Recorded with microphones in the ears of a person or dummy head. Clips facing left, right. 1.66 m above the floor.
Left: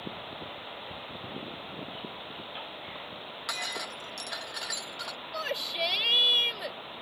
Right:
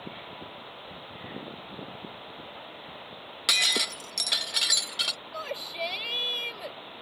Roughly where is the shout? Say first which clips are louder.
Left 1 dB; centre.